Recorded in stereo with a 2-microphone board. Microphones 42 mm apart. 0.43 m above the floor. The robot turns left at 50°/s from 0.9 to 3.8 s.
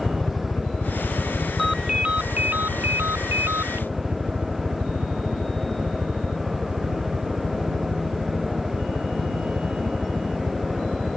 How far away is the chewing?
I don't hear chewing.